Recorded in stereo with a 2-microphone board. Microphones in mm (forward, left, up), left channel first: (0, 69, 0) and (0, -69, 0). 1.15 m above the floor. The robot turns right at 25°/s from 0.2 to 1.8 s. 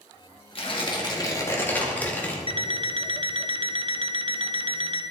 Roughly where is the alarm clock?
Right.